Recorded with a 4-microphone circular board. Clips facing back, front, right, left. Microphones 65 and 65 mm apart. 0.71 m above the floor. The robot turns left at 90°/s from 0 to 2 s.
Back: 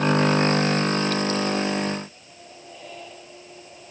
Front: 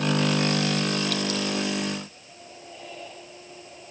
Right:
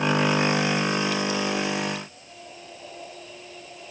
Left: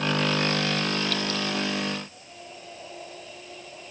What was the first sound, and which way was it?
Only background noise.